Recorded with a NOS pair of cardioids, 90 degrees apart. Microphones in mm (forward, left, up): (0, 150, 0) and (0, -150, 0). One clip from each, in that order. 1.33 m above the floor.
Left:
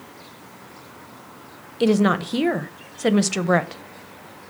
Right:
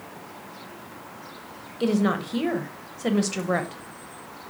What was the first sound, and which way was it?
A woman speaking, 30° left.